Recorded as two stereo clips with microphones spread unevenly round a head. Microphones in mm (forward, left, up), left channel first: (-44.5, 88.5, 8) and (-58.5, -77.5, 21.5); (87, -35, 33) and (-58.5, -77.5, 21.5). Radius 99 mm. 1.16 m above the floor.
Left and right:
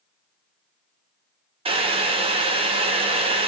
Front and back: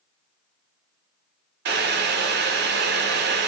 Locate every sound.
1.6 s boiling: 155° right, 0.5 m